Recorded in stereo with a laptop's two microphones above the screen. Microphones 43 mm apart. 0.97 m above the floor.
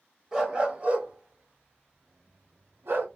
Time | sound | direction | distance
0.3 | a dog barking | 15° right (ahead or behind) | 0.9 m